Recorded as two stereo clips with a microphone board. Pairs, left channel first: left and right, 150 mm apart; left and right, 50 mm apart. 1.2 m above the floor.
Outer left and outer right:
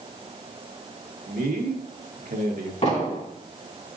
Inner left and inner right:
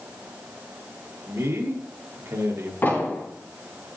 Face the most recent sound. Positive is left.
turn(degrees=50)  # may be behind; listen again after turning